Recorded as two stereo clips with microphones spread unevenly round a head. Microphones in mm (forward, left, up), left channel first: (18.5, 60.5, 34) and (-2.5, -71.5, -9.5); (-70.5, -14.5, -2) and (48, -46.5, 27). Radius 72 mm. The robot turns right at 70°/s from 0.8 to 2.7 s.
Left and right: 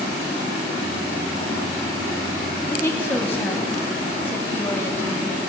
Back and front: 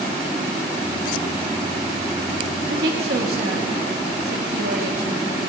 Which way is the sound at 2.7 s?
Straight ahead.